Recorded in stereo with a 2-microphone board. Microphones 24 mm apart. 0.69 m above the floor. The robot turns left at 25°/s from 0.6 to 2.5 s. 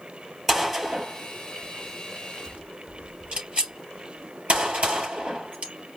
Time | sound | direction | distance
0.5 | a gunshot | 5° right (ahead or behind) | 3.5 m